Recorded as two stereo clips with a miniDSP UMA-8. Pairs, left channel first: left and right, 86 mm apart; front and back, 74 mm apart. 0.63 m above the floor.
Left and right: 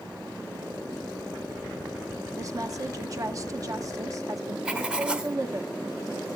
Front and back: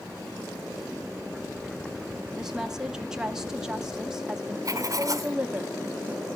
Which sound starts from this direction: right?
A woman speaking, at 2.4 s.